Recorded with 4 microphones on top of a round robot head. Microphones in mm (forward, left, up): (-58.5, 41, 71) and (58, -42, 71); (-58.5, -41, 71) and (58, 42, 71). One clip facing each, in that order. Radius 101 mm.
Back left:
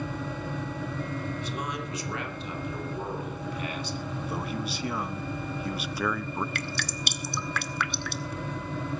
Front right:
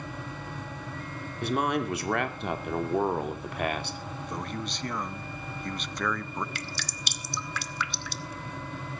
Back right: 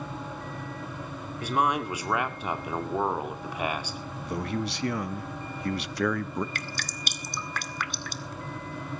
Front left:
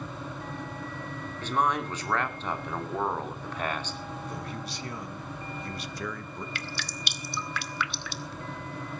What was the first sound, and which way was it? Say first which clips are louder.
A man speaking: front right 7 dB, back right 1 dB; 65° right.